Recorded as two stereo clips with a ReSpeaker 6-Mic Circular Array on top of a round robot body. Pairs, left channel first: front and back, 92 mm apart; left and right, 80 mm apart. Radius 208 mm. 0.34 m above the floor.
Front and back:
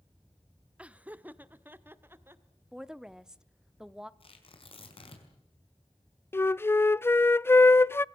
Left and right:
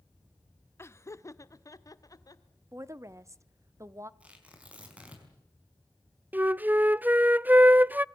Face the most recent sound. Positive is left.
turn(degrees=-45)